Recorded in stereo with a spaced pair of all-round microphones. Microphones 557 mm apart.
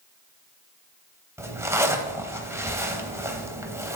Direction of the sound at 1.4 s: 5° right (ahead or behind).